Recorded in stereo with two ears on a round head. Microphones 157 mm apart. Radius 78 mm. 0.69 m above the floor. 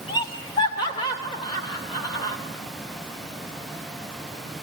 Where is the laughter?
25° left (ahead or behind), 2.5 m.